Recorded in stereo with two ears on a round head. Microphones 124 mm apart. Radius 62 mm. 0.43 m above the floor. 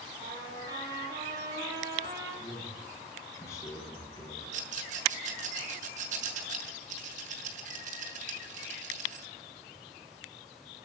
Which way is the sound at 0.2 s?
25° right (ahead or behind).